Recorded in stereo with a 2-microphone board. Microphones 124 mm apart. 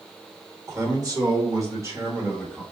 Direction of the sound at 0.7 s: 25° right (ahead or behind).